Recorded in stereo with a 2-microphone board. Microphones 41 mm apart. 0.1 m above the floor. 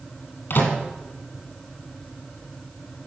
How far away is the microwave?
About 2.5 m.